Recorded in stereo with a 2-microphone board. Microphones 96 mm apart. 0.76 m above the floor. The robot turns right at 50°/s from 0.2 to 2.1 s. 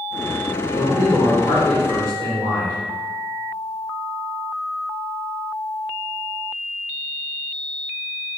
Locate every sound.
0.7 s a man speaking: 50° left, 2.5 m; by 2.8 s 120° left, 2.5 m